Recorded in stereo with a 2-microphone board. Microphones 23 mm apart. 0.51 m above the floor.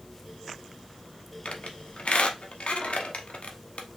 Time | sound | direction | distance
1.4 | a squeak | 75° left (ahead or behind) | 1.0 m